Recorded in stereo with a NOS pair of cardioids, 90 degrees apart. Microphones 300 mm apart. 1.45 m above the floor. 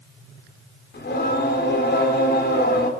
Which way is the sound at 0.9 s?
35° left.